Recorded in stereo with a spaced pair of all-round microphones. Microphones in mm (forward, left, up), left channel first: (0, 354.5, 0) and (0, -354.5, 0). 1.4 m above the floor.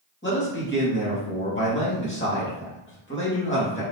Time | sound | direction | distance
0.2 | a man speaking | 15° left (ahead or behind) | 2 m